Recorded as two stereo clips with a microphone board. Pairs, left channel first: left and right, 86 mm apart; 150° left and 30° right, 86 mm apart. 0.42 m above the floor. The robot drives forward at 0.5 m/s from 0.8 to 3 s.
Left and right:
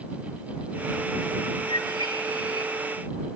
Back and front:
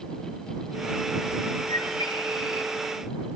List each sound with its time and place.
1.7 s a bird: 120° left, 7 m